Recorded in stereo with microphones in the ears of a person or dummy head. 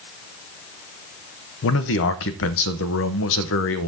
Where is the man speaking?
70° left (ahead or behind), 1.1 m.